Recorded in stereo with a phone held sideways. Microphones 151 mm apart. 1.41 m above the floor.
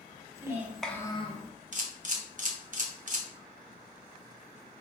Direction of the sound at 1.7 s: 55° right (ahead or behind).